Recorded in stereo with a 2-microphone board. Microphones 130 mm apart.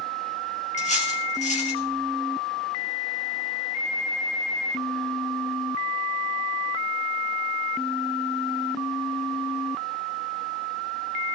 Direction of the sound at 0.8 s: 65° left (ahead or behind).